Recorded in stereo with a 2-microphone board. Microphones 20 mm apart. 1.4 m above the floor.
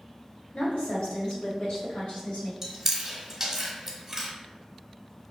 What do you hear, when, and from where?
0.5 s a woman speaking: 80° left, 1.5 m; by 2.5 s 85° left, 3.5 m
2.6 s chewing: 15° right (ahead or behind), 1.2 m